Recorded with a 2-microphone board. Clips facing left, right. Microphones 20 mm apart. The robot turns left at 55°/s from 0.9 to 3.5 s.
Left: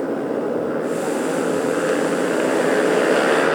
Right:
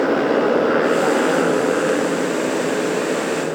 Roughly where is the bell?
I don't hear a bell.